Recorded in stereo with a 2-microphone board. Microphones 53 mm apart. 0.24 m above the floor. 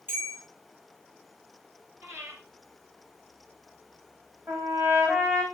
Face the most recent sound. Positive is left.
turn(degrees=-45)  # may be behind; listen again after turning